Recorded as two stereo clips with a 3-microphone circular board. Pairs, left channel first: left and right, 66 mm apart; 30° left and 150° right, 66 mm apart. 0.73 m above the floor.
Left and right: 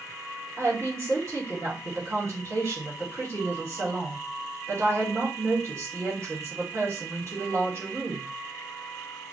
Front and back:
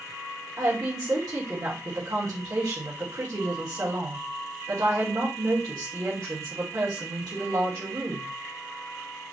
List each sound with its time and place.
0.6 s a woman speaking: 130° right, 2 m